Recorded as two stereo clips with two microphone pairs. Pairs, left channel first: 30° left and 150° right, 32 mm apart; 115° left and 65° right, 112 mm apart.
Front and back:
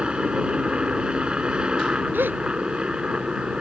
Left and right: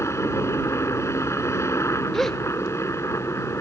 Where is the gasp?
155° right.